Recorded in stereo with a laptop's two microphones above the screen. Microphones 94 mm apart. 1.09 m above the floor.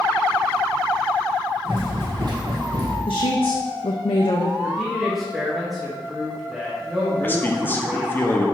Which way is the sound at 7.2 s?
20° left (ahead or behind).